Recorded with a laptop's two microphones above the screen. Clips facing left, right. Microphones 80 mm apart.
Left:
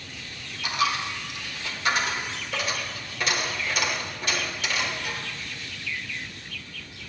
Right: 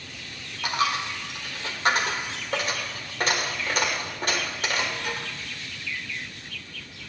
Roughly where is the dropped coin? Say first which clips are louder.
Even; right.